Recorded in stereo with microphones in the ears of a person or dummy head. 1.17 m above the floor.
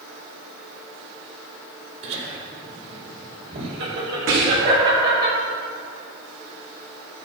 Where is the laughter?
75° right (ahead or behind), 4 m; by 5.3 s 55° right (ahead or behind), 5.5 m.